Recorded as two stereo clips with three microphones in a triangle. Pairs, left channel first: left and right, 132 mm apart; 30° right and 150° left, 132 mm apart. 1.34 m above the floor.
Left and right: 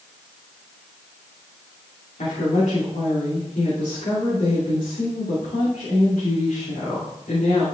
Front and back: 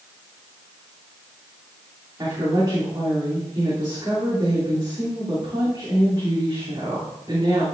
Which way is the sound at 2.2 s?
95° left.